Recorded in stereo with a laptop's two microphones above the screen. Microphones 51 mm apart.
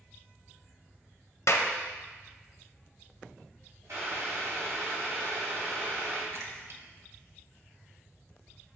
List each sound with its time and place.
1.5 s a clap: 60° left (ahead or behind), 0.6 m
3.9 s boiling: 70° right (ahead or behind), 2.5 m
6.3 s a splash: 55° right (ahead or behind), 0.9 m